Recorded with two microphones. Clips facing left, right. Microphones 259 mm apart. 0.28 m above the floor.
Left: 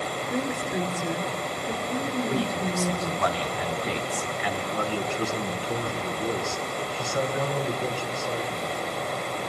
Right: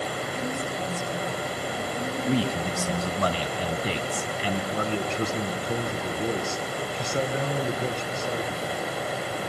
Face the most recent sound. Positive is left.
turn(degrees=-20)  # may be behind; listen again after turning